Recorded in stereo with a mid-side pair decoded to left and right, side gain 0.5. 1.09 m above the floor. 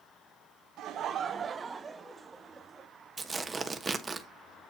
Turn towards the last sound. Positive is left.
turn(degrees=-30)